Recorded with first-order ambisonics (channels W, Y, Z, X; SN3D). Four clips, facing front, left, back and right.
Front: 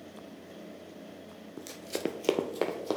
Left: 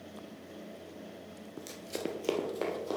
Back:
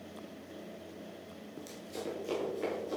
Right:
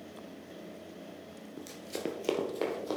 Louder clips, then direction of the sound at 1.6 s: Even, front 8 dB; 40° left.